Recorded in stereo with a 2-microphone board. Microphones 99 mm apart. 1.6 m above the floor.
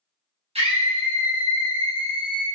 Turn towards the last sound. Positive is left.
turn(degrees=-20)  # may be behind; listen again after turning